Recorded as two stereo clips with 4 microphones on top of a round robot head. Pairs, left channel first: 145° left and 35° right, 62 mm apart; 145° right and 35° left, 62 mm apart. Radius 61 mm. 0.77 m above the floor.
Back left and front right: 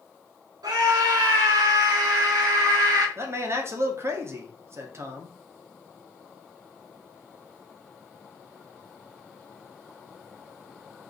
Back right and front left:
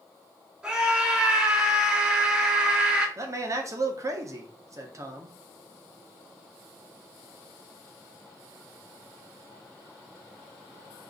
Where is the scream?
50° right, 3.5 m.